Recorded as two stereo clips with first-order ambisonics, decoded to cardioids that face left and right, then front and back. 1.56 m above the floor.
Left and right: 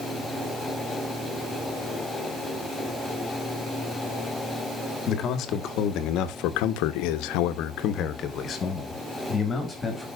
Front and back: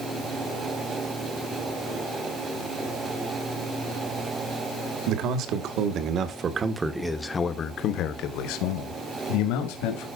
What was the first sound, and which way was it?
A man speaking, 145° left.